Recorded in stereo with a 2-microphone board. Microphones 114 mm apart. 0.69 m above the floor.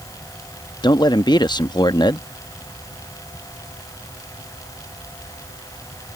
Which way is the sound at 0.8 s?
40° left (ahead or behind).